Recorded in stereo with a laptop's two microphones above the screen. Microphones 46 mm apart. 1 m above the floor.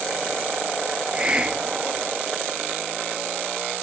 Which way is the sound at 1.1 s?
20° right (ahead or behind).